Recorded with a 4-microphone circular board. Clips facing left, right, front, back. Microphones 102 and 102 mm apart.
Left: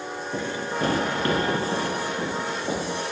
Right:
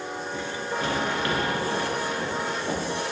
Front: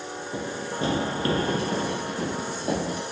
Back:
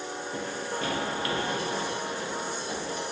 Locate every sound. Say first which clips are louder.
0.3 s running footsteps: left 3 dB, front 3 dB; 70° left, 1.7 m; by 3.0 s 10° left, 2.5 m